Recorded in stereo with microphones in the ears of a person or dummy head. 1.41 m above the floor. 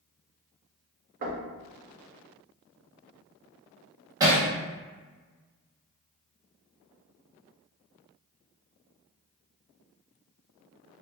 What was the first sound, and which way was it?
Knocking, 40° right (ahead or behind).